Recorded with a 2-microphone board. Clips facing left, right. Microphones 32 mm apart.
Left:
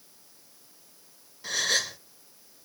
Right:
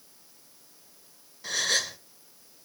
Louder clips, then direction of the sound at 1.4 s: Even; centre (ahead or behind).